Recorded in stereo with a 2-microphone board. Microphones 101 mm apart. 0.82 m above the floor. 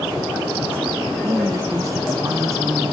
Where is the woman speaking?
30° right (ahead or behind).